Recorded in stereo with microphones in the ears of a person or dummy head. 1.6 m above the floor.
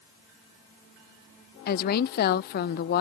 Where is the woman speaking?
45° left (ahead or behind).